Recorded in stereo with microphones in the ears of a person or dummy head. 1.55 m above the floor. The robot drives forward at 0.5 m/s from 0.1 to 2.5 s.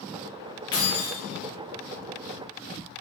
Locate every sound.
0.7 s keys jangling: 20° left (ahead or behind), 0.6 m; by 1.2 s 15° left (ahead or behind), 0.8 m